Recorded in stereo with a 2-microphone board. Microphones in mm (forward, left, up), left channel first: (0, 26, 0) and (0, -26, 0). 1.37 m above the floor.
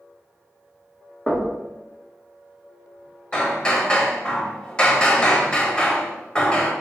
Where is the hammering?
15° left (ahead or behind), 1.3 m.